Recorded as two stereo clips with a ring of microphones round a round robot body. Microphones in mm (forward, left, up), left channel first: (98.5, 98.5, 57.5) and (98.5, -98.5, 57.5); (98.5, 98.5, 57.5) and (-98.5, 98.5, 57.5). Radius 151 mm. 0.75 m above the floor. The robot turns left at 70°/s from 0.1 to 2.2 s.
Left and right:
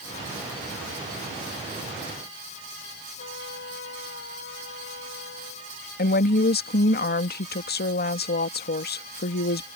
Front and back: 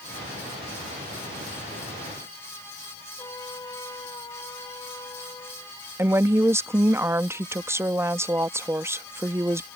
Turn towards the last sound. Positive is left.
turn(degrees=105)